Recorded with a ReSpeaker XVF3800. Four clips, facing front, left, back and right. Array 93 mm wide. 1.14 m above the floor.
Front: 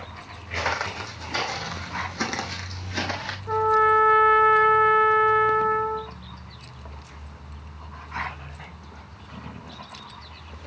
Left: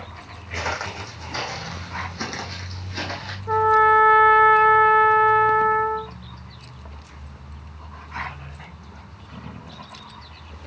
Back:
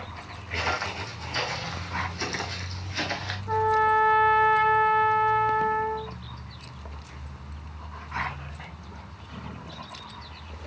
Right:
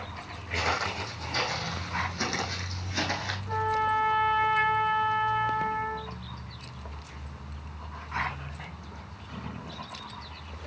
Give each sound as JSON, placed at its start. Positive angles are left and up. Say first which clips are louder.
{"t": 0.5, "sound": "footsteps", "louder": "left 1 dB, front 2 dB", "azimuth_deg": 15, "distance_m": 4.0}
{"t": 3.5, "sound": "a trumpet", "louder": "left 11 dB, front 3 dB", "azimuth_deg": 70, "distance_m": 2.0}